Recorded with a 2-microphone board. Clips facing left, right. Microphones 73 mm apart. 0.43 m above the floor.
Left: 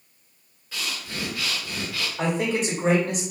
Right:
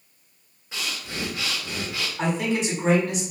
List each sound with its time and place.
0.7 s breathing: 20° right (ahead or behind), 0.9 m
2.2 s a man speaking: 40° left (ahead or behind), 1.8 m